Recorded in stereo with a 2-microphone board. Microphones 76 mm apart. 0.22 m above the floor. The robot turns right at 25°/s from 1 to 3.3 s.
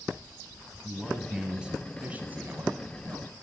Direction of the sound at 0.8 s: 175° right.